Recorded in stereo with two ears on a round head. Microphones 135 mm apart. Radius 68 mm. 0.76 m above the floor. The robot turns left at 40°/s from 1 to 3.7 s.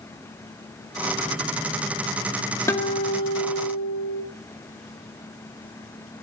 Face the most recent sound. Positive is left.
turn(degrees=115)